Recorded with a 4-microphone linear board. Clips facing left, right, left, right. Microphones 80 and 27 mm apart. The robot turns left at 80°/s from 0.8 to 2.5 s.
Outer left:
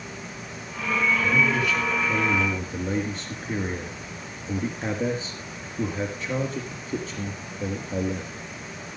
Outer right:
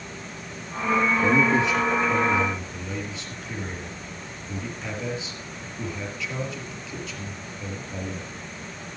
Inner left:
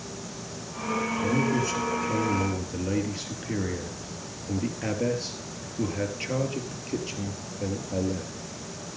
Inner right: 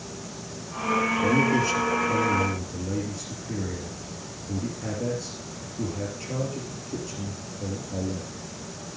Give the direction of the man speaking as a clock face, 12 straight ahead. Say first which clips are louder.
Outer right 3 dB, inner right 2 dB; 4 o'clock.